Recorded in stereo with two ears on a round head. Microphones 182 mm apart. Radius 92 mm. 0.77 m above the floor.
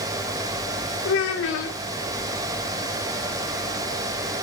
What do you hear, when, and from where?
1.1 s a child speaking: 65° left (ahead or behind), 1.5 m